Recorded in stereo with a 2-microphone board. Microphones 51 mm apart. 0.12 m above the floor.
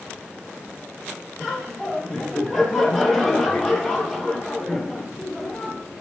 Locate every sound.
1.4 s laughter: 5° left (ahead or behind), 2.5 m